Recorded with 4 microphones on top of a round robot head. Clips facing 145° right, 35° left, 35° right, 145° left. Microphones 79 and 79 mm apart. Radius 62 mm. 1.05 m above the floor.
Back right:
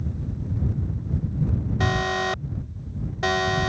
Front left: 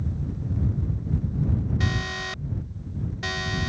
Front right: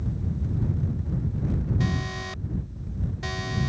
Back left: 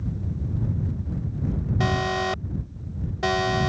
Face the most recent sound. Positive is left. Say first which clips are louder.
# back right 6 dB, back left 6 dB
turn(degrees=170)